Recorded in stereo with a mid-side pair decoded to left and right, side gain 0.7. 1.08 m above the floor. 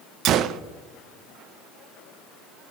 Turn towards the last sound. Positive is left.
turn(degrees=-55)